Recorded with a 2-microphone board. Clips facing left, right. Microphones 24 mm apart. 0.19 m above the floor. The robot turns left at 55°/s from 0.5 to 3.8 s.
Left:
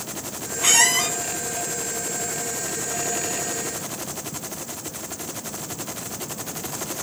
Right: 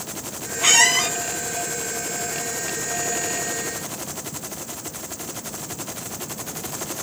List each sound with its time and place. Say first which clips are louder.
0.6 s a squeak: right 2 dB; 15° right (ahead or behind), 0.7 m; by 1.1 s 5° right (ahead or behind), 0.7 m